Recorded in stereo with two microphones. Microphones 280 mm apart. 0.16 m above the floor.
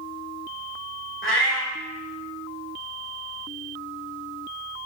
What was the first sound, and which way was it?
A cat meowing, 45° left (ahead or behind).